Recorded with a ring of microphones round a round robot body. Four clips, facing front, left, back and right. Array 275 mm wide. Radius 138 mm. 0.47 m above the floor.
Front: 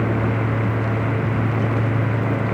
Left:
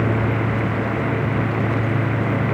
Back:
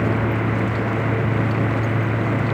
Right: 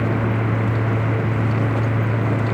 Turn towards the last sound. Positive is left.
No sound to turn to.